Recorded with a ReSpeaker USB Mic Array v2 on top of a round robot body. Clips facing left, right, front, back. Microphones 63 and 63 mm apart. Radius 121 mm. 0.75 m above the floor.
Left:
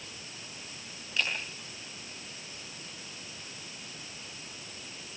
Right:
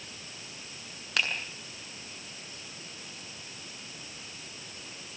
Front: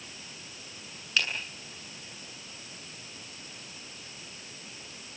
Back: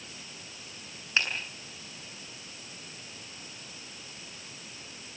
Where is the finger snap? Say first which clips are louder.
Right 2 dB, back 1 dB; 115° right, 7.5 m.